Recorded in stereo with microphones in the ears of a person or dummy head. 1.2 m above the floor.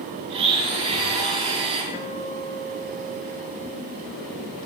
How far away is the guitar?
About 4 m.